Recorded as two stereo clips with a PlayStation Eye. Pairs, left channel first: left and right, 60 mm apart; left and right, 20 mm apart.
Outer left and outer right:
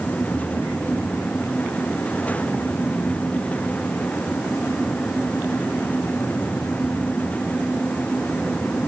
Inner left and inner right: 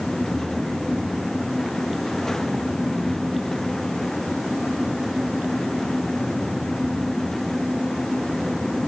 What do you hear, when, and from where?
Only background noise.